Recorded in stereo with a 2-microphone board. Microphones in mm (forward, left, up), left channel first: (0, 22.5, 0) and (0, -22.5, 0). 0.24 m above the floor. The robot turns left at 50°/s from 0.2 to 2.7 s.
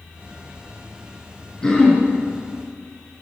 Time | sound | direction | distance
1.6 | throat clearing | 10° left (ahead or behind) | 2.5 m